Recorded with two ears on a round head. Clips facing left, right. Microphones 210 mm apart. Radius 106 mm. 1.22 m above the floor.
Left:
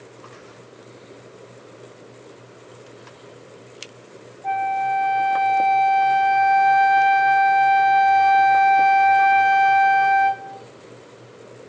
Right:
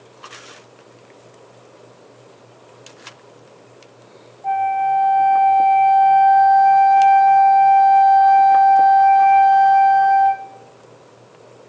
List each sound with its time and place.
4.4 s a flute: 25° left (ahead or behind), 2.5 m